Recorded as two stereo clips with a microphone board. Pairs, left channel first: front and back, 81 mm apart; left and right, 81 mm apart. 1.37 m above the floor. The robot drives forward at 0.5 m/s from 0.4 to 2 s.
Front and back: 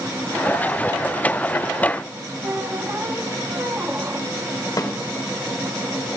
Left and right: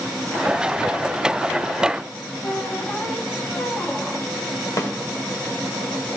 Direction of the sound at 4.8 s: 45° left.